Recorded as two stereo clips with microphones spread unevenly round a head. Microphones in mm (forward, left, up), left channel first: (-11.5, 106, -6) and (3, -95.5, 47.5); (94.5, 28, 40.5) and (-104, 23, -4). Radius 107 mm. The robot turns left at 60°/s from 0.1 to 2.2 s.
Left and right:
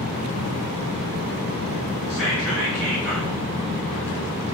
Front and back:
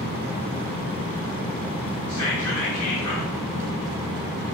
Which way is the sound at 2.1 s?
15° left.